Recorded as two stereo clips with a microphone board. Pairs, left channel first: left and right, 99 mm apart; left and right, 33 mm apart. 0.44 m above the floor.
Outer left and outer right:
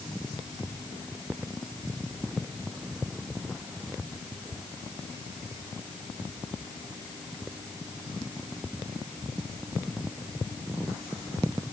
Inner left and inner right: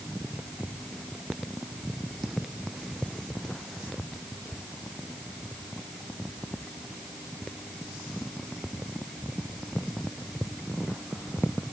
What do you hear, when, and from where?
Only background noise.